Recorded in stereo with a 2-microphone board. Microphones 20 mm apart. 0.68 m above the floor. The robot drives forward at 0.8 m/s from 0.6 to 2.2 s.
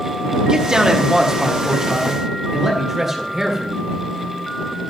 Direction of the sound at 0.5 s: 45° right (ahead or behind).